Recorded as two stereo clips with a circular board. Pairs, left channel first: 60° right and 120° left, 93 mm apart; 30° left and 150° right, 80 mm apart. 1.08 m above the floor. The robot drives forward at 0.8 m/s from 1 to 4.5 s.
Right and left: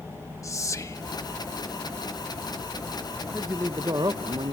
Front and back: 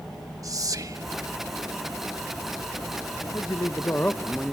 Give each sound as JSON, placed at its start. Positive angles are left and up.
{"t": 0.4, "sound": "whispering", "azimuth_deg": -110, "distance_m": 1.1}
{"t": 3.2, "sound": "a man speaking", "azimuth_deg": 50, "distance_m": 1.0}